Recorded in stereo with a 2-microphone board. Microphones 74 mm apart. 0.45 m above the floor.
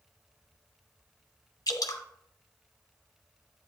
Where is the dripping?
65° left (ahead or behind), 1.4 m.